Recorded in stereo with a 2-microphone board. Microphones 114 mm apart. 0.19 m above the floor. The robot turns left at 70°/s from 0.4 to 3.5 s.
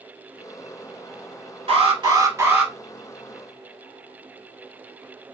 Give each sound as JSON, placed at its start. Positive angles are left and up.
{"t": 1.7, "sound": "an alarm", "azimuth_deg": -100, "distance_m": 1.5}